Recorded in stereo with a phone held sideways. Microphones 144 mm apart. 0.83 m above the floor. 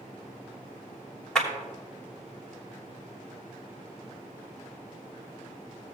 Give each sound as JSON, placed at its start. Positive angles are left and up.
{"t": 1.4, "sound": "a clap", "side_deg": 5, "distance_m": 3.0}